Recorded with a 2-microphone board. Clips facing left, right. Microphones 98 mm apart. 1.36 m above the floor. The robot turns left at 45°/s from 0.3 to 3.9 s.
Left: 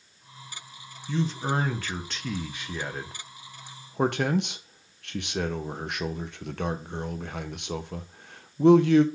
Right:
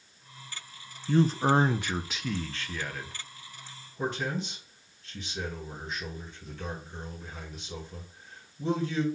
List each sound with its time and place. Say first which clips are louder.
1.1 s a man speaking: right 5 dB; 50° right (ahead or behind), 0.6 m; by 9.1 s 70° left (ahead or behind), 0.6 m